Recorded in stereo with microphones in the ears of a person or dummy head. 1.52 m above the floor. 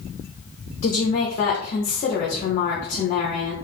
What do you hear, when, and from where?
0.8 s a woman speaking: 45° left (ahead or behind), 0.7 m